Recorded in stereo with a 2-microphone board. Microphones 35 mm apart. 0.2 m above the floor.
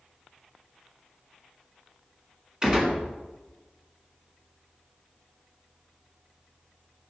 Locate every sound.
2.6 s a gunshot: 20° right (ahead or behind), 1.8 m